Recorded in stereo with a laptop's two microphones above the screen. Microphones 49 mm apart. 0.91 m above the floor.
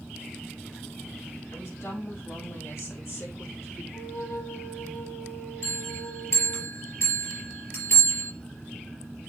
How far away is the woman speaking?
About 5.5 m.